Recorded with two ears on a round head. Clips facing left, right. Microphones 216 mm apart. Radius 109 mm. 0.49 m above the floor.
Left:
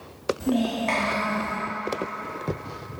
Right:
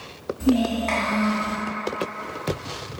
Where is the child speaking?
5° right (ahead or behind), 1.4 m.